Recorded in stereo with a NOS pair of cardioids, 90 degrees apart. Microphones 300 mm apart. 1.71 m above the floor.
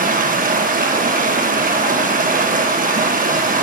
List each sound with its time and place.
0.0 s running water: 30° right, 1.3 m